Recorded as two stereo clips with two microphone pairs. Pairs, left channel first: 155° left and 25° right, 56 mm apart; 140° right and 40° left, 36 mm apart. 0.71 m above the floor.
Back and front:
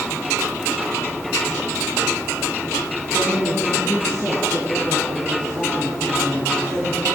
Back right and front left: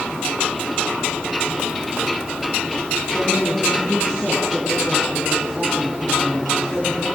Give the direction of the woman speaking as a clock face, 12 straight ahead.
2 o'clock.